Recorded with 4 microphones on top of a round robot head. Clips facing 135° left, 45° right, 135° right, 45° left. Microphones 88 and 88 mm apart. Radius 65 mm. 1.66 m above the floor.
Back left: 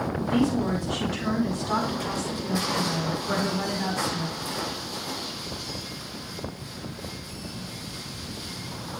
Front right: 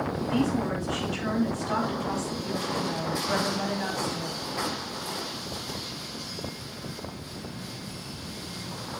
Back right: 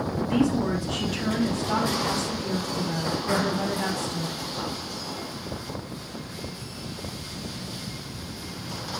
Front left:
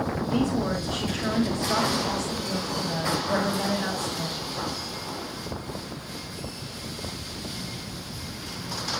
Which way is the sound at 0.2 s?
150° right.